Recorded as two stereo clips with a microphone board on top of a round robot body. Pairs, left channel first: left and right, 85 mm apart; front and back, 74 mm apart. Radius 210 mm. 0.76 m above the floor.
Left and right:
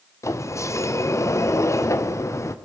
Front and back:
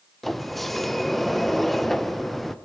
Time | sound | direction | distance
0.2 | a sliding door | 85° left | 1.1 m